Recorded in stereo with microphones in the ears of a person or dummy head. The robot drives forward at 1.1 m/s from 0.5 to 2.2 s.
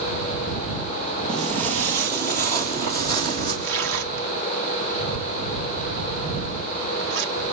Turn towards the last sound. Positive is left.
turn(degrees=-75)  # may be behind; listen again after turning